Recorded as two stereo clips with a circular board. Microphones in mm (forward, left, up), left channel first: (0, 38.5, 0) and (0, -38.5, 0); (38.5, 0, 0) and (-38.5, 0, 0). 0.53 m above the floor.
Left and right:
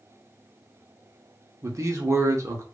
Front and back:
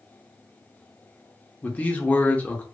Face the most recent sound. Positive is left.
turn(degrees=-65)